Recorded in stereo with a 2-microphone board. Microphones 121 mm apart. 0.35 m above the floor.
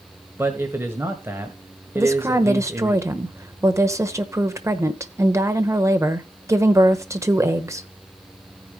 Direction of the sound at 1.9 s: 25° right (ahead or behind).